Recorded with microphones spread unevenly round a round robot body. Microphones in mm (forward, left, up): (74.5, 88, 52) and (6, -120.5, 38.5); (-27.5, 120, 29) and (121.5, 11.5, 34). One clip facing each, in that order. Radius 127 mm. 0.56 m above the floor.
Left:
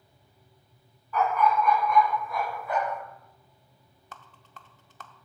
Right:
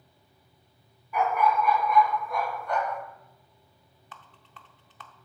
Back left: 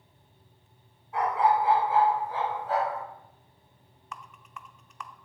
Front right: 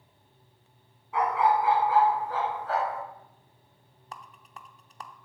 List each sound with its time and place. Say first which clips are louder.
1.1 s a dog barking: even, even; 30° right, 1.7 m; by 3.0 s 10° right, 2.5 m
4.1 s a rattle: left 2 dB, back left 1 dB; 20° left, 0.7 m